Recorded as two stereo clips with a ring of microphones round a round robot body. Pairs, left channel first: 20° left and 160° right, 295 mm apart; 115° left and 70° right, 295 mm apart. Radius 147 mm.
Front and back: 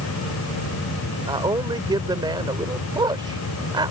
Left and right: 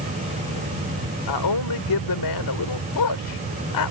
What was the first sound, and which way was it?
A man speaking, 125° left.